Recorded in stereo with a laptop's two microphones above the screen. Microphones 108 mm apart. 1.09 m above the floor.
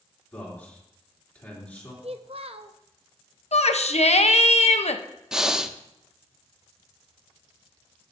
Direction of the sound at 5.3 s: 5° right (ahead or behind).